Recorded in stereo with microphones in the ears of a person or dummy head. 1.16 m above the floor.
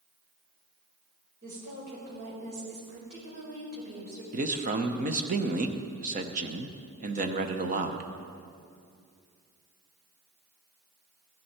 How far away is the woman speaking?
About 4.5 m.